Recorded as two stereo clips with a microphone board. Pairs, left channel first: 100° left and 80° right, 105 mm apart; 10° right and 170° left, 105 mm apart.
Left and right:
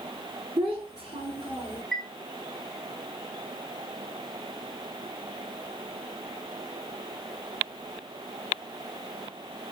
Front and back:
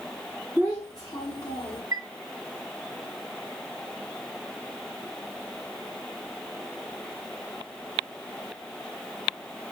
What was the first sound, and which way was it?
A child speaking, 80° right.